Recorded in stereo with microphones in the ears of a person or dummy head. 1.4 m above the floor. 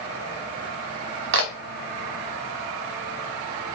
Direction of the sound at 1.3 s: 60° right (ahead or behind).